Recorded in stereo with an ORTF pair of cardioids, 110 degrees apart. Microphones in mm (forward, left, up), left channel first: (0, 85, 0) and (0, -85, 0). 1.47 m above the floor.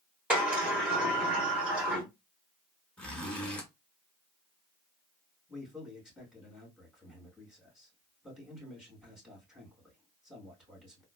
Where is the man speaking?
Straight ahead, 2.5 m.